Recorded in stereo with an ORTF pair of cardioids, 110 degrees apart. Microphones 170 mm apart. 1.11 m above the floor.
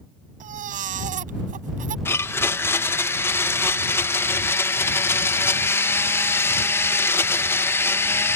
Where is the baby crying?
55° right.